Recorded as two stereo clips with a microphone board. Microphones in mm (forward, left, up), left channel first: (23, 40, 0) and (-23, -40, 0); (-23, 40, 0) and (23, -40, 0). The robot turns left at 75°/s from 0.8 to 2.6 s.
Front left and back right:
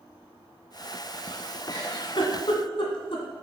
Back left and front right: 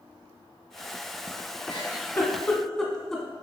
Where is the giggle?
105° left, 1.5 m; by 3.2 s 35° left, 1.5 m.